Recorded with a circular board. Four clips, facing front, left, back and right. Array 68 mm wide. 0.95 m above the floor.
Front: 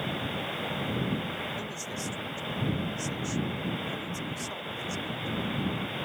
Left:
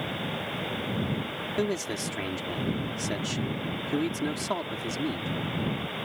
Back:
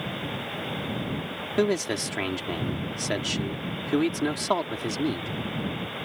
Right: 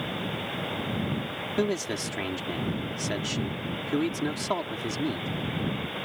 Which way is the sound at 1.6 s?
175° right.